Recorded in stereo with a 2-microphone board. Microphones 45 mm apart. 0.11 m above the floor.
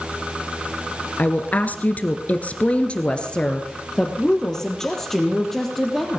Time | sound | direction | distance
1.2 | a woman speaking | 35° left (ahead or behind) | 1.5 m